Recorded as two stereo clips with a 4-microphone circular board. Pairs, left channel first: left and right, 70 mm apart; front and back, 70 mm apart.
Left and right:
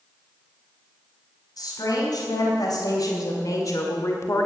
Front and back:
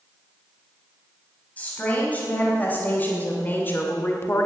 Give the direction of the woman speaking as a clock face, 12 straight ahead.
10 o'clock.